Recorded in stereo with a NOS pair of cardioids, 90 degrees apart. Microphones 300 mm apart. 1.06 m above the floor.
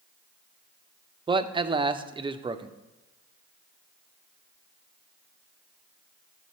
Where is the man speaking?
15° right, 0.6 m.